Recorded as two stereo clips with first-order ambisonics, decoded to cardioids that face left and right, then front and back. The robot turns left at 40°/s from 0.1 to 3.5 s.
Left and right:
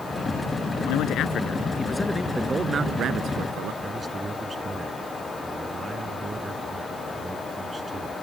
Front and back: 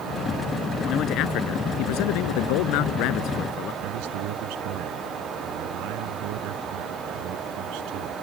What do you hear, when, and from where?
0.8 s a man speaking: 55° left; by 3.7 s 50° right
3.8 s a man speaking: 165° right